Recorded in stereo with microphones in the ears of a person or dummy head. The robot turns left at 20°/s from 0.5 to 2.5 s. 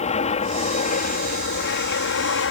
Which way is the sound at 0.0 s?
145° left.